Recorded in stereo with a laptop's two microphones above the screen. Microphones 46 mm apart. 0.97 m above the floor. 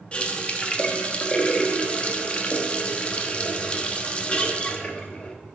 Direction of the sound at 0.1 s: 30° left (ahead or behind).